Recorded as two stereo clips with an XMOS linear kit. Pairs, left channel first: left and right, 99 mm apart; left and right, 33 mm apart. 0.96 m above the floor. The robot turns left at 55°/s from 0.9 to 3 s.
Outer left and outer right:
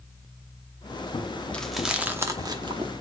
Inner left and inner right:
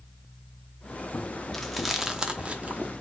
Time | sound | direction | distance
1.5 | chewing | 10° left (ahead or behind) | 0.7 m